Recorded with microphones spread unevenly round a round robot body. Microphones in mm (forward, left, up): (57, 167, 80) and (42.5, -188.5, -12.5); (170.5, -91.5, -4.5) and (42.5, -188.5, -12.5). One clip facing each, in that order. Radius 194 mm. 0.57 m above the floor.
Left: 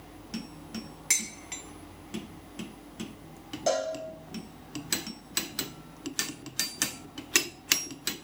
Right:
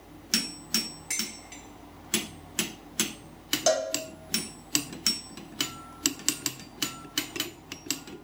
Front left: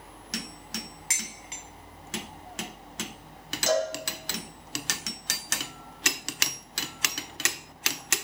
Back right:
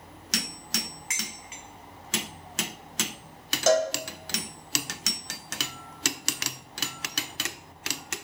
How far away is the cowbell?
About 0.7 m.